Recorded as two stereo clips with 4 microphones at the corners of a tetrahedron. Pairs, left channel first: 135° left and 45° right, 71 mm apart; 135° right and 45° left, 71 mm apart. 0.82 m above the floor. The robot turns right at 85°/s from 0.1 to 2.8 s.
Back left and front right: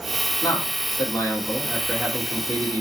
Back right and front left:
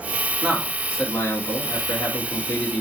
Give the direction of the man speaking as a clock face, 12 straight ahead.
8 o'clock.